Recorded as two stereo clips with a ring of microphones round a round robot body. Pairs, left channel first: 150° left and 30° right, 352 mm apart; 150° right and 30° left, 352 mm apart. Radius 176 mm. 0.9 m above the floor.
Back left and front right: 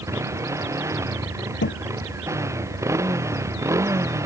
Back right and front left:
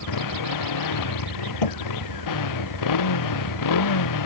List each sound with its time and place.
0.0 s a motorcycle: 110° right
1.6 s a thud: 150° right